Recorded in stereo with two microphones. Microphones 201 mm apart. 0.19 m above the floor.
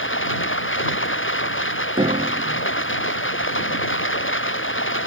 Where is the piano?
30° right (ahead or behind).